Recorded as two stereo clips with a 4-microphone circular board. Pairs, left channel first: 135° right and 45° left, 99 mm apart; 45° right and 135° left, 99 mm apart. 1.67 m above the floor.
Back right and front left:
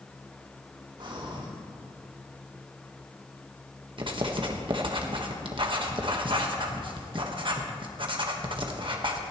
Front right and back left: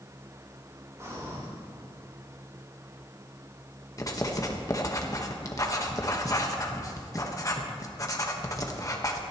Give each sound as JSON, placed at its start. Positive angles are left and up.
{"t": 1.0, "sound": "breathing", "azimuth_deg": 75, "distance_m": 3.5}
{"t": 4.0, "sound": "writing", "azimuth_deg": 10, "distance_m": 1.4}